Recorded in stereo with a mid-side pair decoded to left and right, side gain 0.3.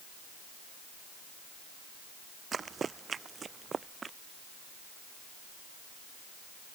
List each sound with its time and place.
2.5 s running footsteps: 60° right; by 4.2 s 55° right